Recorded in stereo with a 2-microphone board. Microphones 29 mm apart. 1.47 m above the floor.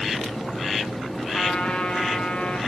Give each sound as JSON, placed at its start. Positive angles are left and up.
{"t": 1.3, "sound": "a trumpet", "side_deg": 50, "distance_m": 1.4}